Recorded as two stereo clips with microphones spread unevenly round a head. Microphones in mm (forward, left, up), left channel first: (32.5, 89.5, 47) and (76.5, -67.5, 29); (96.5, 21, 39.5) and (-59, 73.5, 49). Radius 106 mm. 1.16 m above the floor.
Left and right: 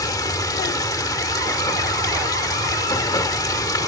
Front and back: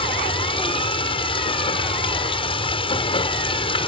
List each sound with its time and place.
0.0 s running water: 40° left